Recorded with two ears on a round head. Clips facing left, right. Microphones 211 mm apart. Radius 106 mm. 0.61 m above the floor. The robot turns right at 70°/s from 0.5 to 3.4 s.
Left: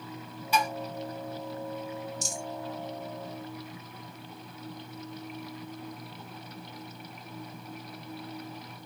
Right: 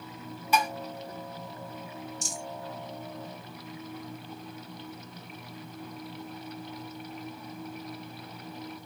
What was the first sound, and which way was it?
Dishes clattering, 45° right (ahead or behind).